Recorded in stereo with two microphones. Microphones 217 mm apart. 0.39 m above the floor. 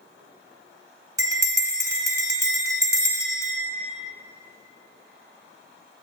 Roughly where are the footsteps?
No footsteps in this recording.